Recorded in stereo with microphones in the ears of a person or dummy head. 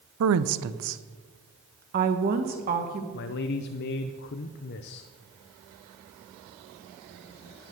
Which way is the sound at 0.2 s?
80° right.